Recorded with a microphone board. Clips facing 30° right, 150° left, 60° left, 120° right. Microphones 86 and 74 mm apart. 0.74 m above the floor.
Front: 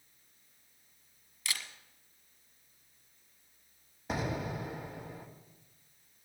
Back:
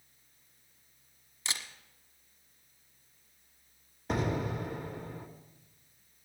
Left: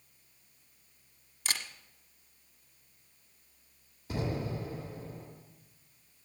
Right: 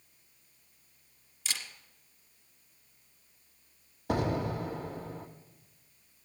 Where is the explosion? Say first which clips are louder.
Back 3 dB, right 5 dB; 115° right, 1.7 m.